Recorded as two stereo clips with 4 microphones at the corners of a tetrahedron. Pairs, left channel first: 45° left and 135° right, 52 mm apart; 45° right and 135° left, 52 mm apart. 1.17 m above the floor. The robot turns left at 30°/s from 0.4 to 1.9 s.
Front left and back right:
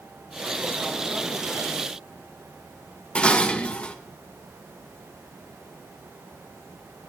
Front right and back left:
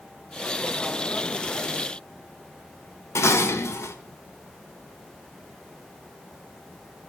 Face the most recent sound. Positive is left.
turn(degrees=-20)